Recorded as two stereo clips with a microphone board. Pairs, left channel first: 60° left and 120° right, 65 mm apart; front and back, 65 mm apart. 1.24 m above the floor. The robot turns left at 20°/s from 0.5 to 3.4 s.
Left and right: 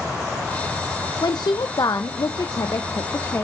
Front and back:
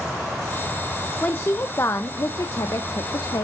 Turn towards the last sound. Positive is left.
turn(degrees=15)